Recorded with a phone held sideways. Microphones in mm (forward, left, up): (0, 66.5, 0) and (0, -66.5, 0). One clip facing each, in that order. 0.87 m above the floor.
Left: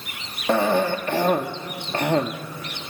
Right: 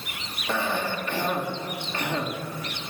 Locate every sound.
0.5 s a cough: 50° left (ahead or behind), 1.4 m